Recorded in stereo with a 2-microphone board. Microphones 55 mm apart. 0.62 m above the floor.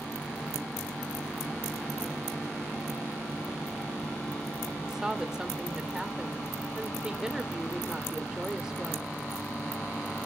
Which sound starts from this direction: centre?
A woman speaking, at 4.8 s.